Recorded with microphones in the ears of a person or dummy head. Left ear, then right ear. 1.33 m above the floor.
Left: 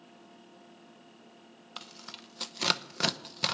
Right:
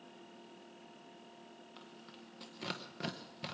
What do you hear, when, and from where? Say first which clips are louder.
1.8 s tearing paper: left 14 dB; 45° left (ahead or behind), 0.7 m